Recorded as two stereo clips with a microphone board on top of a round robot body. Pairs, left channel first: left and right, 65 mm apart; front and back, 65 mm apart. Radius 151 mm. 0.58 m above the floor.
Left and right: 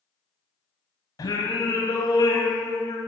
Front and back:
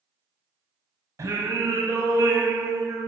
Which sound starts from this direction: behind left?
Singing, at 1.2 s.